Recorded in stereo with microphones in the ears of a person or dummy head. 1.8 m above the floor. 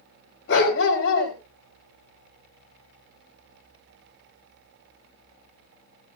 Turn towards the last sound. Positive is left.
turn(degrees=75)  # may be behind; listen again after turning